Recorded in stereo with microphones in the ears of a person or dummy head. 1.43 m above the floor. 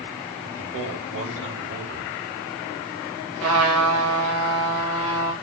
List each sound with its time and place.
0.4 s a man speaking: 65° right (ahead or behind), 2.5 m
3.4 s a trumpet: 80° right, 2.5 m